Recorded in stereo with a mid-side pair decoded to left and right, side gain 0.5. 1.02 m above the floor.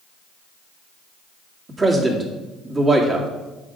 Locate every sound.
1.7 s a man speaking: 25° right, 2.5 m